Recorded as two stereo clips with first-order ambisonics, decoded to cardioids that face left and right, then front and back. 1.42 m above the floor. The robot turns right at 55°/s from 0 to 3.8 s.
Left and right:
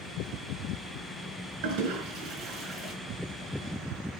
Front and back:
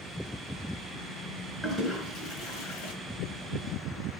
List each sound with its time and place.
1.6 s a toilet flushing: 85° right, 4.5 m; by 2.9 s 15° right, 4.5 m